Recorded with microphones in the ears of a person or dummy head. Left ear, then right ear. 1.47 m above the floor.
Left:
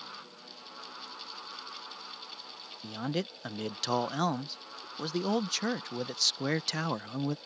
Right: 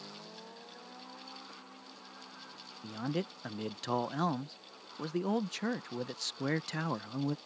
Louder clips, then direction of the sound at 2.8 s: Left 2 dB; 35° left (ahead or behind).